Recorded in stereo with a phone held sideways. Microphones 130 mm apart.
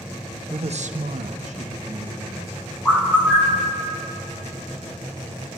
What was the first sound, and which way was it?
A man speaking, 40° right (ahead or behind).